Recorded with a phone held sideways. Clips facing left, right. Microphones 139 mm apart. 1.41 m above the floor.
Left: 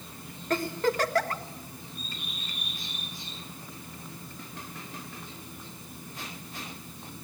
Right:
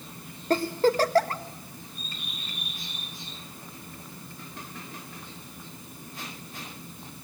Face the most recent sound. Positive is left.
turn(degrees=-30)  # may be behind; listen again after turning